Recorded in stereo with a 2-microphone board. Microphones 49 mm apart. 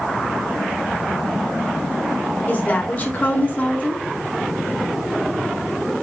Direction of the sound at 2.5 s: 30° left (ahead or behind).